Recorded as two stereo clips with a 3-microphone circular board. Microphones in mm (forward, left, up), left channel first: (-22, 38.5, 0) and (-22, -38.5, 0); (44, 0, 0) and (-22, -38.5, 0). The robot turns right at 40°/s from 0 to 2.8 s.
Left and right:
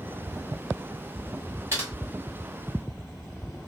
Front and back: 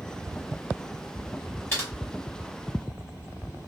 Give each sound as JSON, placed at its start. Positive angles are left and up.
{"t": 1.7, "sound": "typing on a keyboard", "azimuth_deg": -30, "distance_m": 1.9}